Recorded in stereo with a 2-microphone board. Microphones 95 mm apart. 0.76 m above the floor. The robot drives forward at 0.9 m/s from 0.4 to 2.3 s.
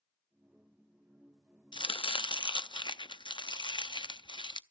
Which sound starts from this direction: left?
Chopping, at 1.7 s.